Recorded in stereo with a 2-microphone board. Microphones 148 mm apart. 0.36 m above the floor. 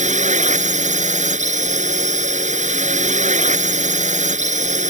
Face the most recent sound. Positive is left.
turn(degrees=-55)  # may be behind; listen again after turning